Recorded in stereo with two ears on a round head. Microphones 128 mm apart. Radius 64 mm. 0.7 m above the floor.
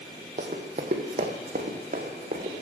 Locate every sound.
0.4 s running footsteps: 45° right (ahead or behind), 1.5 m; by 2.5 s 50° right (ahead or behind), 3 m